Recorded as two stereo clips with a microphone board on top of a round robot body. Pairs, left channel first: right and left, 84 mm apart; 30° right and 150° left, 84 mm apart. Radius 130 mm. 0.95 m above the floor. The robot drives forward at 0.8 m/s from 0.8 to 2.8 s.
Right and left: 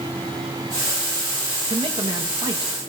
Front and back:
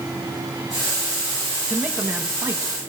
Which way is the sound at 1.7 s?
75° left.